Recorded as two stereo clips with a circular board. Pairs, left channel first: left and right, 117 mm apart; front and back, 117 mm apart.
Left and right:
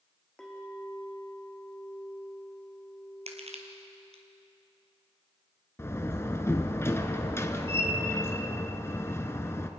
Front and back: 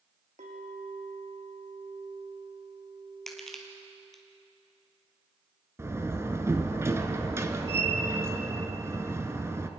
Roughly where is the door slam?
Behind left.